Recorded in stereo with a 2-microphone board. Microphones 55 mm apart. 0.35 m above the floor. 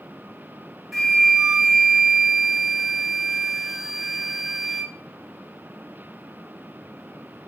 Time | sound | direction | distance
0.9 | a flute | 5° right (ahead or behind) | 3 m